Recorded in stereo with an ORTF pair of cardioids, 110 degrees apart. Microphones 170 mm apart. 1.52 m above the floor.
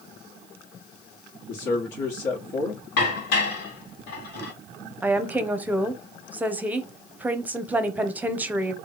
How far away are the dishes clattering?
About 1.9 m.